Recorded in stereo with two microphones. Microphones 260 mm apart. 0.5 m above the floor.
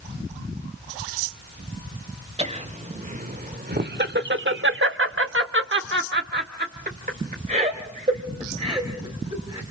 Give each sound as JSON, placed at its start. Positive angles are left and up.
{"t": 2.4, "sound": "laughter", "side_deg": -25, "distance_m": 1.6}